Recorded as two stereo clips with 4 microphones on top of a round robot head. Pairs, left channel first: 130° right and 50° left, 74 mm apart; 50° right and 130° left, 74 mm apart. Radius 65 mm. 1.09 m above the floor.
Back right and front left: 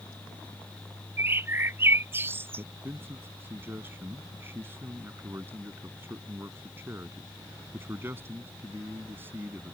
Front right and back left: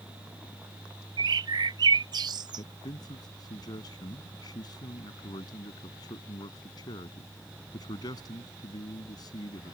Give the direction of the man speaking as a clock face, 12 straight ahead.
12 o'clock.